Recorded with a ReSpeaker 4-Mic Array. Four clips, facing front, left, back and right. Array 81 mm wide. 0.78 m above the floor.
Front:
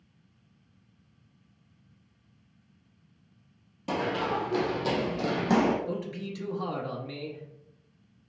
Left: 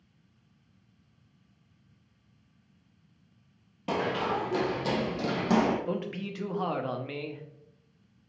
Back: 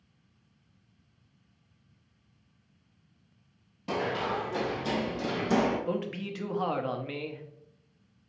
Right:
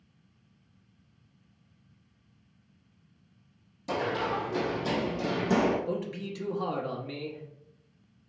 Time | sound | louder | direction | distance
3.9 | running footsteps | left 1 dB, front 2 dB | 80° left | 1.6 m
5.9 | a man speaking | even, back 2 dB | 140° left | 0.7 m